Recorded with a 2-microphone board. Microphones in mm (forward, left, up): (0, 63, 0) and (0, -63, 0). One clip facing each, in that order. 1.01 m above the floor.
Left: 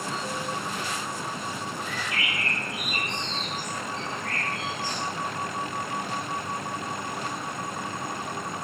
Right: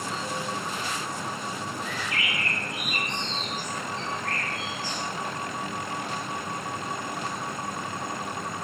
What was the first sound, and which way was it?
A bird, 30° left (ahead or behind).